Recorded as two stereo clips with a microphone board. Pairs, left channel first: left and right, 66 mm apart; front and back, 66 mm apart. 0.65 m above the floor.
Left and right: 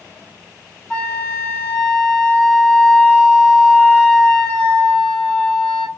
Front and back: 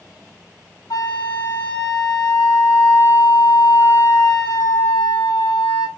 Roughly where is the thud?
No thud in this recording.